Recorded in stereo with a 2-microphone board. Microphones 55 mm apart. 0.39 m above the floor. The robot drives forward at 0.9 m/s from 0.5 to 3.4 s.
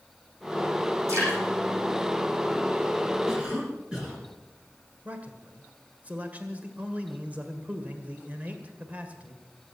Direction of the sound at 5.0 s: 25° right (ahead or behind).